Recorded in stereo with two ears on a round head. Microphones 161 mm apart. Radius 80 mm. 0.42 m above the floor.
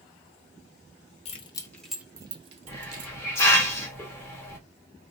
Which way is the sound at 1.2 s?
35° left (ahead or behind).